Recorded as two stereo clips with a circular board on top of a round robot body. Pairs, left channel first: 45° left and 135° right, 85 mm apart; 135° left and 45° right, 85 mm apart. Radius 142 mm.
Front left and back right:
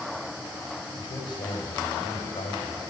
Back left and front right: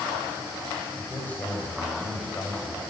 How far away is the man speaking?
About 3 m.